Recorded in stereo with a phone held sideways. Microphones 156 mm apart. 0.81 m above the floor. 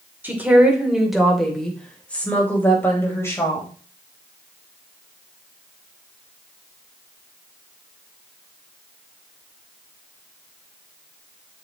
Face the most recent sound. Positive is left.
turn(degrees=20)  # may be behind; listen again after turning